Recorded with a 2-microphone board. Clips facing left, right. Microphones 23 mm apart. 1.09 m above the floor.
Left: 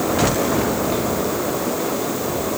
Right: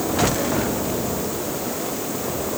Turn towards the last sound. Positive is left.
No sound to turn to.